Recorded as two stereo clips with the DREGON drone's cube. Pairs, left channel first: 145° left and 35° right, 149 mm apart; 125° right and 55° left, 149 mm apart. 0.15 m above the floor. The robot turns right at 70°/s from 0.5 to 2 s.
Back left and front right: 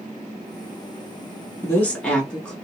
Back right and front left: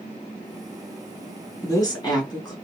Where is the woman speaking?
165° right, 1.1 m; by 2.5 s 140° right, 1.1 m.